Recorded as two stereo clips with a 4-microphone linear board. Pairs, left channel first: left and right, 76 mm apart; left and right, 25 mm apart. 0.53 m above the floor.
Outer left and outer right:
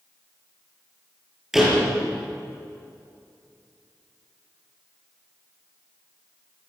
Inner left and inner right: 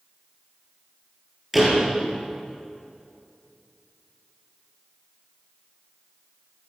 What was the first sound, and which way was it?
A door slam, 5° right (ahead or behind).